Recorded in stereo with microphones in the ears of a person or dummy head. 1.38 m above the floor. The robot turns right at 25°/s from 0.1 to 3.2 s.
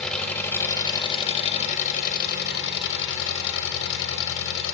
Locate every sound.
0.0 s an engine running: 5° left, 0.9 m; by 4.7 s 80° left, 0.9 m